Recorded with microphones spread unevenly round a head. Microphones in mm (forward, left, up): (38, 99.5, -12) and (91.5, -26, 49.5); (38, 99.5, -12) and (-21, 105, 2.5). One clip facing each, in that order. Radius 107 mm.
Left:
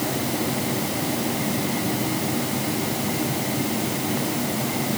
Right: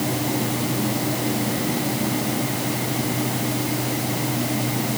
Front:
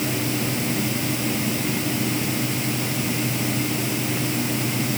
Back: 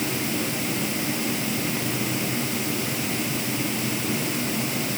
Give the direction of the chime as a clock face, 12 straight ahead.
No chime in this recording.